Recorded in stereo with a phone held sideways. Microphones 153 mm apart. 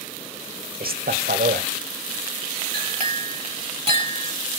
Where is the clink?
40° right (ahead or behind), 2.0 m.